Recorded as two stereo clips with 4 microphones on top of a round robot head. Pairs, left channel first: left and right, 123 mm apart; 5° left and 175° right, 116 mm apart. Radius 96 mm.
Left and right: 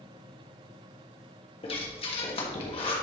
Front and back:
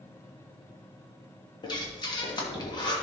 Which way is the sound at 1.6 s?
50° left.